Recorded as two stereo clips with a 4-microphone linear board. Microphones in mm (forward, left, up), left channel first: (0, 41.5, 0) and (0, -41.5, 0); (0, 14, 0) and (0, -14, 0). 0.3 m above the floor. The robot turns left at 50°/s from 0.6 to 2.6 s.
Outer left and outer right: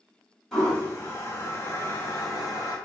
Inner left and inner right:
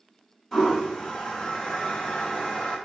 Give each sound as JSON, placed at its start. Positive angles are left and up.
{"t": 0.5, "sound": "a toilet flushing", "side_deg": 5, "distance_m": 1.9}